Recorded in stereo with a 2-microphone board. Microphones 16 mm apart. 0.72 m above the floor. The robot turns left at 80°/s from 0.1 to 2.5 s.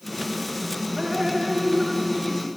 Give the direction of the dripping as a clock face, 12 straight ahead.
3 o'clock.